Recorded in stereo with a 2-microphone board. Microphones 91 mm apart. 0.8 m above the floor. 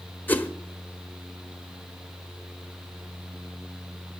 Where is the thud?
I don't hear a thud.